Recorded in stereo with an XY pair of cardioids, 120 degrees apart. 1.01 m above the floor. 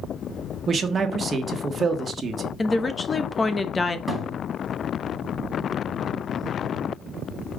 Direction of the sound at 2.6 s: 25° left.